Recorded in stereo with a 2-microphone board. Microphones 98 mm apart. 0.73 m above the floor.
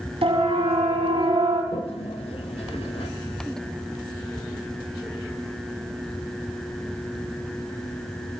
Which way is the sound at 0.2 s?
80° right.